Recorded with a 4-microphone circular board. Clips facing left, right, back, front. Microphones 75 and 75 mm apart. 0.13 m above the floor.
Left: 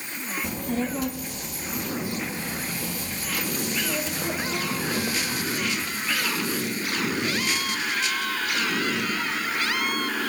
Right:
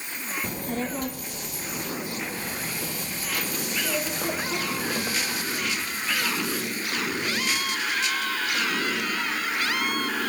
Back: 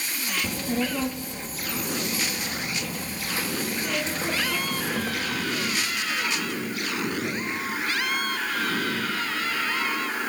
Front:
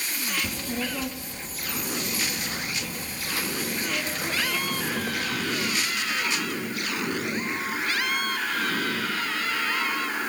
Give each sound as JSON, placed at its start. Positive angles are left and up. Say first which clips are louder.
{"t": 0.4, "sound": "a child speaking", "louder": "left 3 dB, back 4 dB", "azimuth_deg": -130, "distance_m": 3.0}